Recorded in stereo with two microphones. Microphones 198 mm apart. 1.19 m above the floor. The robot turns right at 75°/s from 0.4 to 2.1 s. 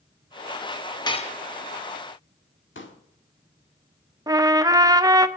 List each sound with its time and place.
1.1 s dishes clattering: 20° left (ahead or behind), 1.0 m; by 1.3 s 40° left (ahead or behind), 1.0 m
2.8 s a pop: 75° left (ahead or behind), 1.5 m
4.3 s a trumpet: 20° right (ahead or behind), 0.6 m